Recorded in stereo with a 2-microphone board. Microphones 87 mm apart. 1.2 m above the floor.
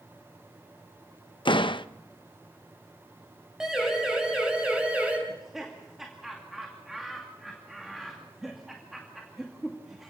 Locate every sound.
1.4 s a door slam: 70° left (ahead or behind), 0.6 m
3.6 s a siren: 5° right (ahead or behind), 6 m; by 5.2 s 15° right (ahead or behind), 5.5 m
5.3 s laughter: 5° right (ahead or behind), 2.5 m